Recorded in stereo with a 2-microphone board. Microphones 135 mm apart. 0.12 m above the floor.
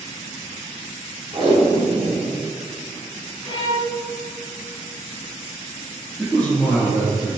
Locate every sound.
1.3 s tape being pulled: 35° right (ahead or behind), 0.9 m
3.4 s a violin: 35° left (ahead or behind), 1.6 m
6.2 s a man speaking: 10° left (ahead or behind), 1.4 m